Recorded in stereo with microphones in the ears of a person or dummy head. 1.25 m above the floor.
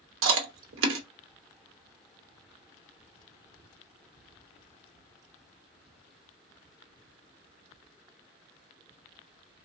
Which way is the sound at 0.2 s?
65° right (ahead or behind).